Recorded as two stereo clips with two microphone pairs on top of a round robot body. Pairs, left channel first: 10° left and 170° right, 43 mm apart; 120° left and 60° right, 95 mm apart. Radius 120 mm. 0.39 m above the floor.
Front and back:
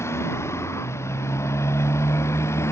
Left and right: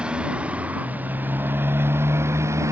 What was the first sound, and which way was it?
A motorcycle, 20° left.